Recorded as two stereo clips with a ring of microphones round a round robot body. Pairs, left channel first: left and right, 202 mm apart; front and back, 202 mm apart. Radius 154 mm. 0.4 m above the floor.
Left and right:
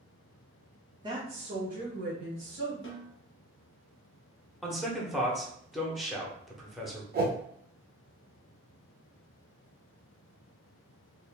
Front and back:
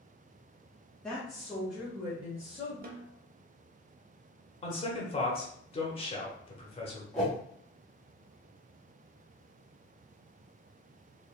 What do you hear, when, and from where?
1.0 s a woman speaking: 80° right, 0.8 m; by 2.7 s 100° right, 1.4 m
2.8 s a snare drum: 130° left, 0.7 m
4.6 s a man speaking: straight ahead, 1.1 m
7.1 s a whoosh: 85° right, 1.0 m